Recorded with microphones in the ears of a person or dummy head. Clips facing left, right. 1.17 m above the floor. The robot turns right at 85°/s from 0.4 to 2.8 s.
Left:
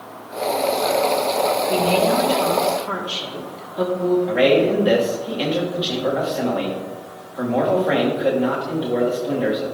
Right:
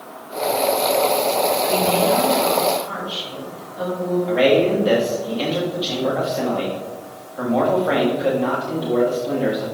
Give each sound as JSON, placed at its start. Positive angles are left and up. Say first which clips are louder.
{"t": 1.7, "sound": "a woman speaking", "louder": "even", "azimuth_deg": 15, "distance_m": 1.4}
{"t": 4.3, "sound": "a man speaking", "louder": "right 3 dB", "side_deg": 5, "distance_m": 1.5}